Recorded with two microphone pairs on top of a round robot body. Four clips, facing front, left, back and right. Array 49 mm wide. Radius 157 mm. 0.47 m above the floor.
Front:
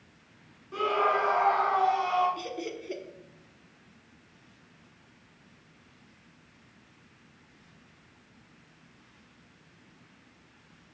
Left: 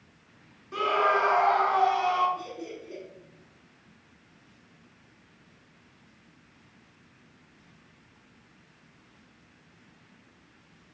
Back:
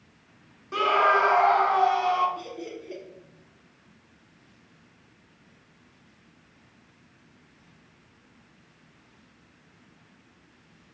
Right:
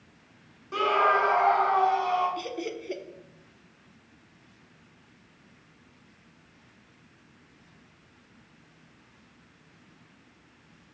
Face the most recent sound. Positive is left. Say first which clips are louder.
# right 5 dB, front 1 dB
turn(degrees=-65)